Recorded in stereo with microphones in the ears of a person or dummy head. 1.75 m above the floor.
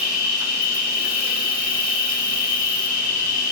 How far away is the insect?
About 1.1 m.